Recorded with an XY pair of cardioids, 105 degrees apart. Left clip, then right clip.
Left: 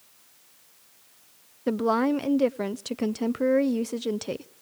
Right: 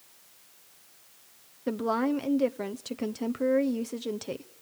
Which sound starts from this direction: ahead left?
A woman speaking, at 1.7 s.